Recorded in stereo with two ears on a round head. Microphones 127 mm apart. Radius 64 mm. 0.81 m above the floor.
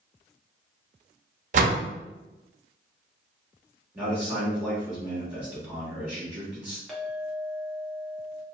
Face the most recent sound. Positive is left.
turn(degrees=0)  # may be behind; listen again after turning